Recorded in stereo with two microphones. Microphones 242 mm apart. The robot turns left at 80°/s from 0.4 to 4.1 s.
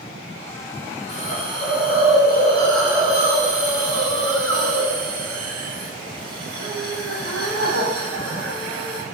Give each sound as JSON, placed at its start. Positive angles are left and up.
{"t": 1.1, "sound": "a hiss", "azimuth_deg": 135, "distance_m": 0.5}